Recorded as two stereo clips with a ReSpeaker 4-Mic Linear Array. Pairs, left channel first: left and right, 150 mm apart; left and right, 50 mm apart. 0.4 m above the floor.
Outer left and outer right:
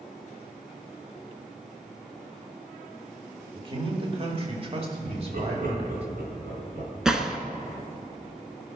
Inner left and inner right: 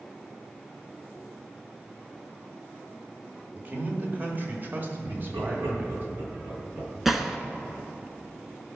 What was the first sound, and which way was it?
A man speaking, 35° right (ahead or behind).